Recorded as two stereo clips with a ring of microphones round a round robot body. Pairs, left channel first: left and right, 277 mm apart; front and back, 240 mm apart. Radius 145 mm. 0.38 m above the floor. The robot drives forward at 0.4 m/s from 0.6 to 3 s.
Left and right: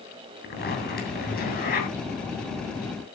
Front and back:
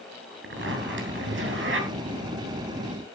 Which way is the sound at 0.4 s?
145° left.